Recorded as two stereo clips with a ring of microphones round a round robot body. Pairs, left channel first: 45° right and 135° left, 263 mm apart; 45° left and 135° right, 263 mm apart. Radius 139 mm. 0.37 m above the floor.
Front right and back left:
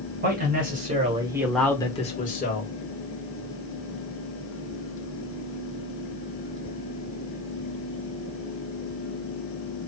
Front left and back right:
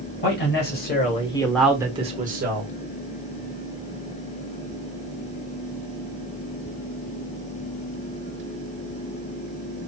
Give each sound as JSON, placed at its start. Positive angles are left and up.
{"t": 0.2, "sound": "a man speaking", "azimuth_deg": 85, "distance_m": 1.9}